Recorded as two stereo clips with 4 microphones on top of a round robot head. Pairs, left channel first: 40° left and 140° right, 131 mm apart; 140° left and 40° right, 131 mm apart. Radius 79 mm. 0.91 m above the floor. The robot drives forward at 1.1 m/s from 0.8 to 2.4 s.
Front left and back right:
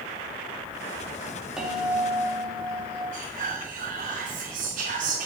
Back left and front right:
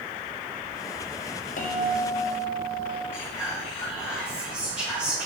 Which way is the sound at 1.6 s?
135° left.